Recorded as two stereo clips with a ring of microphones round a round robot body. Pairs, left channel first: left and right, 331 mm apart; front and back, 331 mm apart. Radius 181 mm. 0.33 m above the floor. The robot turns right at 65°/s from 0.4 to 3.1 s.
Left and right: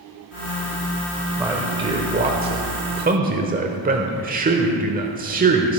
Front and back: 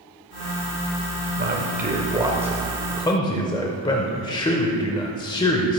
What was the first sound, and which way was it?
A man speaking, 175° right.